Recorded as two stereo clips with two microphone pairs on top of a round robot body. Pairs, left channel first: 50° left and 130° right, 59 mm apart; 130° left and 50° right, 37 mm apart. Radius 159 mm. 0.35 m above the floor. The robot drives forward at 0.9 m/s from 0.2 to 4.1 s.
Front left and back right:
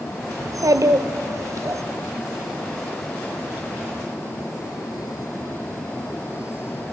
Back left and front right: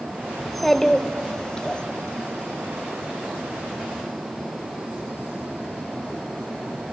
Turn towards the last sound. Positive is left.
turn(degrees=-170)